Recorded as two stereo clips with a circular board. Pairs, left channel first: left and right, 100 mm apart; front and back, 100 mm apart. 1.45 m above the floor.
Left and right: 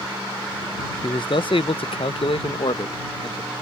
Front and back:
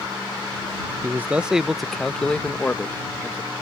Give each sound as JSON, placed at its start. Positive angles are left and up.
{"t": 1.0, "sound": "a man speaking", "azimuth_deg": 120}